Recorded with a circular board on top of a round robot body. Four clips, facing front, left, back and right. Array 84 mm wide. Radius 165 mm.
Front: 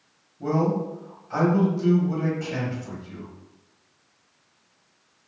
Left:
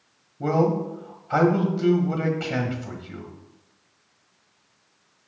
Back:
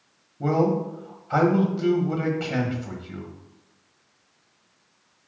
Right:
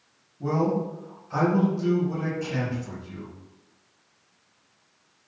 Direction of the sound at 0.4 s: 125° left.